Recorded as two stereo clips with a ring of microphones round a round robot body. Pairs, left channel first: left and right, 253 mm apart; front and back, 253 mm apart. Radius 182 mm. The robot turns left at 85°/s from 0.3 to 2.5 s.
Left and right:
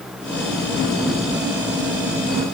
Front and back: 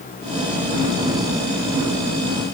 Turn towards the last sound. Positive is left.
No sound to turn to.